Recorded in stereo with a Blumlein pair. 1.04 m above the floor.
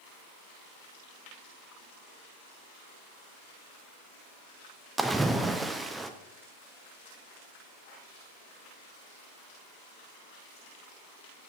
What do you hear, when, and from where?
5.0 s a splash: 5° right, 0.6 m